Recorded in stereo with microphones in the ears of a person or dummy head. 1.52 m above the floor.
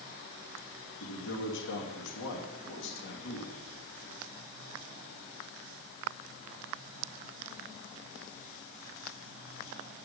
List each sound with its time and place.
1.0 s a man speaking: 70° left (ahead or behind), 2.5 m